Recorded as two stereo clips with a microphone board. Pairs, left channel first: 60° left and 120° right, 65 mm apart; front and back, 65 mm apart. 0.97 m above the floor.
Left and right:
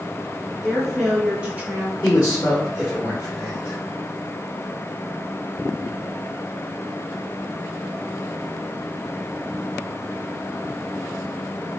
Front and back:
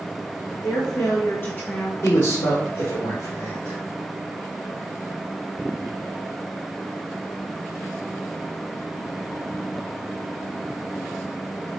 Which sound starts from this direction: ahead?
A man speaking, at 2.0 s.